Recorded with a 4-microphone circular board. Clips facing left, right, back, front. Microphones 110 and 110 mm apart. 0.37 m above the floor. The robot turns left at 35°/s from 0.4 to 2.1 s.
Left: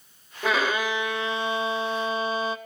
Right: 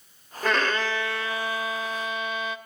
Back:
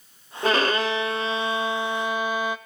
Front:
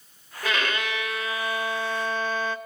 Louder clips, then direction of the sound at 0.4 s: Even, back 6 dB; 175° left.